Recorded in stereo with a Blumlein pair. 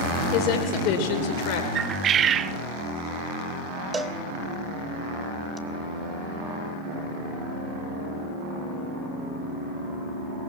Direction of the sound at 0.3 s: 40° left.